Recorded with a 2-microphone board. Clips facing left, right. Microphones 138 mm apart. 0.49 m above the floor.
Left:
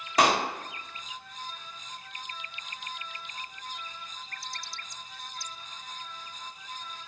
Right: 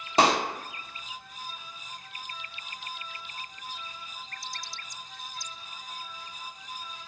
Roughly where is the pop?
Right.